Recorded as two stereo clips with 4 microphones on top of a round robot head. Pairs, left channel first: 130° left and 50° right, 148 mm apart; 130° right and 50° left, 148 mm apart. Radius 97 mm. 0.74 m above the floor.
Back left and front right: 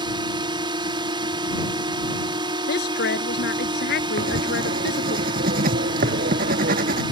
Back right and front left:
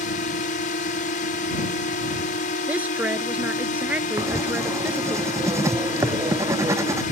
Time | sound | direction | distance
0.0 | a drone | 110° right | ?
2.7 | a woman speaking | 130° left | ?
4.2 | writing | 20° right | ?